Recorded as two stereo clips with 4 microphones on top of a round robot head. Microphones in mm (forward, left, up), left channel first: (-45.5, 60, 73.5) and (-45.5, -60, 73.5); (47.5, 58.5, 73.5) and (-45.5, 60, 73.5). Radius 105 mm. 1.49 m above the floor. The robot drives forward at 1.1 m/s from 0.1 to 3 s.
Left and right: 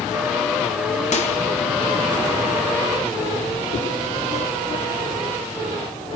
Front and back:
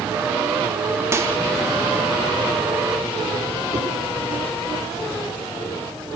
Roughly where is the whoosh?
Behind left.